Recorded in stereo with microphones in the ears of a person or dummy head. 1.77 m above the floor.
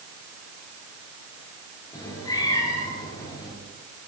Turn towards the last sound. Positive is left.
turn(degrees=20)  # may be behind; listen again after turning